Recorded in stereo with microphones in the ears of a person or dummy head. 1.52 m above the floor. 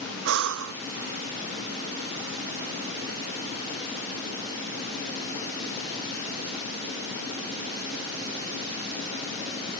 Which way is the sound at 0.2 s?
80° right.